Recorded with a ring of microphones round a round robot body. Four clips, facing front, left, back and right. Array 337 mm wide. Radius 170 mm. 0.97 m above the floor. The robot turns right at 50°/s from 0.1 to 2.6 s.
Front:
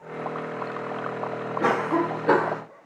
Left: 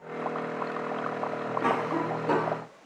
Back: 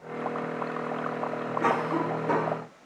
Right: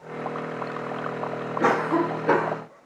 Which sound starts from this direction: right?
A cough, at 1.6 s.